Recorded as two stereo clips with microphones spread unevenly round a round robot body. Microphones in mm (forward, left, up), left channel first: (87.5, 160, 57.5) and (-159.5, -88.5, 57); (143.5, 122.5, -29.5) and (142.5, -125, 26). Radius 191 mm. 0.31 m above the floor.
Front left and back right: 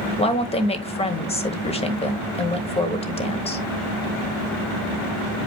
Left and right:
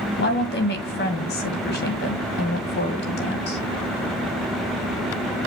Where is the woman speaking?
115° left, 1.3 m.